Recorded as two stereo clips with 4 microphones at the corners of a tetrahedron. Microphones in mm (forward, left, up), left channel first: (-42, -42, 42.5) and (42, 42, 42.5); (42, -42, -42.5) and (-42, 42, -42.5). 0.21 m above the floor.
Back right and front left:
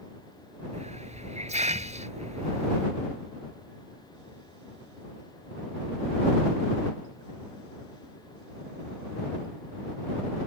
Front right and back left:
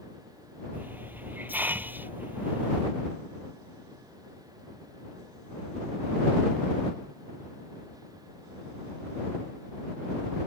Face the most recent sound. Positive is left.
turn(degrees=60)